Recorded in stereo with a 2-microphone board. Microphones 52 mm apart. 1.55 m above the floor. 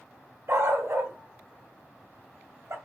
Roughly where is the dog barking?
Right.